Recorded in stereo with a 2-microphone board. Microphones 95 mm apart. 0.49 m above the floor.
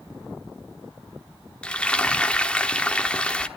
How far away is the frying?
About 1.4 m.